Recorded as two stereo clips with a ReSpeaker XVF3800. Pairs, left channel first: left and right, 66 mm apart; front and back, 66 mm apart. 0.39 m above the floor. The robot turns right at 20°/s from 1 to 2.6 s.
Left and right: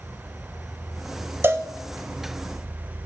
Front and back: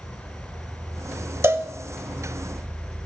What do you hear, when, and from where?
0.0 s an insect: 175° left, 0.8 m; by 3.1 s 155° right, 0.8 m
1.4 s a cowbell: 135° right, 0.7 m